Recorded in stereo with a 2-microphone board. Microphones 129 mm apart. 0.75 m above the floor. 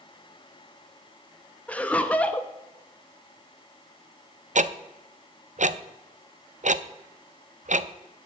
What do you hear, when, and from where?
1.7 s laughter: 10° left (ahead or behind), 0.7 m
4.5 s ticking: 70° right (ahead or behind), 0.5 m